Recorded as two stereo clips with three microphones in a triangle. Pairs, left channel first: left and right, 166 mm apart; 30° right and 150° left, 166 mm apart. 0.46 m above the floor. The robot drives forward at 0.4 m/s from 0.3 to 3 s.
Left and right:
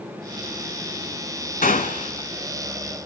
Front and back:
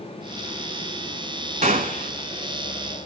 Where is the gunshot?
115° left, 0.8 m; by 2.1 s 125° left, 0.9 m.